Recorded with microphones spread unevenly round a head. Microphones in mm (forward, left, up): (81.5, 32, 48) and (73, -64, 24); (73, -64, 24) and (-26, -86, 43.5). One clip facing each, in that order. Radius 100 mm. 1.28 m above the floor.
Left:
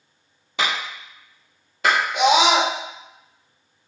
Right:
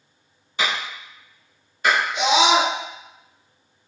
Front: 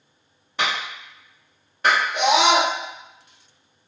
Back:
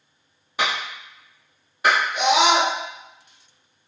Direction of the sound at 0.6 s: 110° left.